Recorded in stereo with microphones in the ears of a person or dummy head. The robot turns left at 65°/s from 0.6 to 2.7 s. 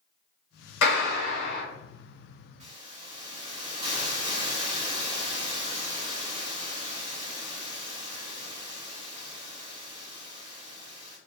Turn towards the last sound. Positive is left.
turn(degrees=-25)  # may be behind; listen again after turning